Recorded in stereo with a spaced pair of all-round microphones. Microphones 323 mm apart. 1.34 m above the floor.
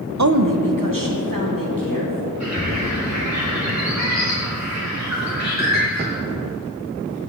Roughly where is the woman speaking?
Right.